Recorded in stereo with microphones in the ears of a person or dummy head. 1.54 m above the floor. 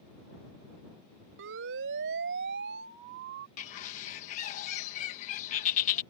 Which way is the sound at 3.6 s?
40° left (ahead or behind).